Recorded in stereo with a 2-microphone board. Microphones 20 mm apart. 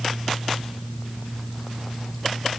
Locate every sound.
Only background noise.